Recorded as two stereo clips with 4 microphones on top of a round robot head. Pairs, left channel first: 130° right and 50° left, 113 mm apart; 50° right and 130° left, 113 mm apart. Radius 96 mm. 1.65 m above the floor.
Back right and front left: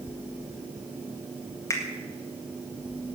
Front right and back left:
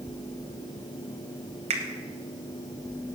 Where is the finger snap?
165° left, 1.7 m.